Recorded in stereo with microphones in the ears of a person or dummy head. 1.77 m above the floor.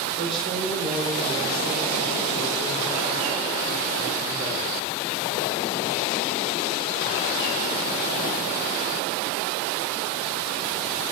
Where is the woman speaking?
40° right (ahead or behind), 6 m.